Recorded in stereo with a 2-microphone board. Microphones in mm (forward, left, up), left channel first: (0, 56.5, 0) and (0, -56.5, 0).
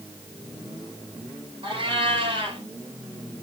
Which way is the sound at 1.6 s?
45° right (ahead or behind).